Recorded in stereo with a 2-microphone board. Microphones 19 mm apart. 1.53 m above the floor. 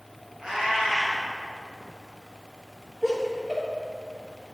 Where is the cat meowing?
45° right (ahead or behind), 2.5 m.